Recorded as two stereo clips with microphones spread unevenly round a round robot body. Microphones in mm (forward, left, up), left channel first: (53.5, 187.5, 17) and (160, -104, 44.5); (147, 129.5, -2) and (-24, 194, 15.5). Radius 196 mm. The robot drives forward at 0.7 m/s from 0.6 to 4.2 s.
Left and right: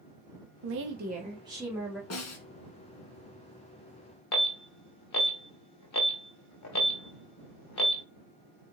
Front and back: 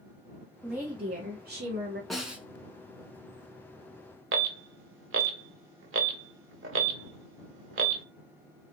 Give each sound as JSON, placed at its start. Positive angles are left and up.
{"t": 0.6, "sound": "a woman speaking", "azimuth_deg": -105, "distance_m": 0.5}
{"t": 2.1, "sound": "a snare drum", "azimuth_deg": 70, "distance_m": 1.4}
{"t": 4.3, "sound": "an alarm", "azimuth_deg": 155, "distance_m": 0.5}